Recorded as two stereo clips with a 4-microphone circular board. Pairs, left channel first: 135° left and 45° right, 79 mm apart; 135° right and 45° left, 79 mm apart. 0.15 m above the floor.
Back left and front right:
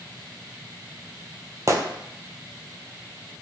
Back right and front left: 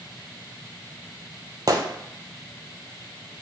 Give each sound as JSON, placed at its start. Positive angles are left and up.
{"t": 1.7, "sound": "a gunshot", "azimuth_deg": 5, "distance_m": 0.6}